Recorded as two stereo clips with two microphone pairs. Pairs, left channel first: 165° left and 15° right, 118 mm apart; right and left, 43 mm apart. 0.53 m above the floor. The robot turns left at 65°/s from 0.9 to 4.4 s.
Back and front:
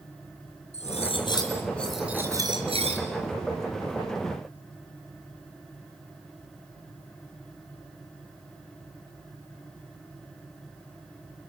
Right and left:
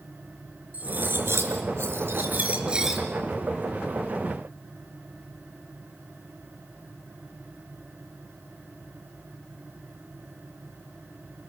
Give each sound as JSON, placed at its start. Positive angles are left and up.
{"t": 0.7, "sound": "cutlery clinking", "azimuth_deg": 140, "distance_m": 5.0}